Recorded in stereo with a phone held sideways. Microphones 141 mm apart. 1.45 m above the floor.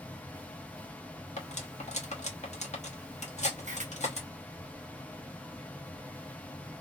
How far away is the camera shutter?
About 0.9 m.